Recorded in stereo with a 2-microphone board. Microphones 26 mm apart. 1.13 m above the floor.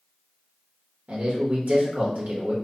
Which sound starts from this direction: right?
A man speaking, at 1.1 s.